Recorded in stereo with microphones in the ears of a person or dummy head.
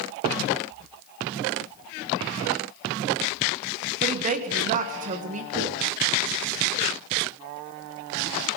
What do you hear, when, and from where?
4.0 s a woman speaking: 40° right (ahead or behind), 1.7 m
5.5 s knocking: 25° right (ahead or behind), 6.5 m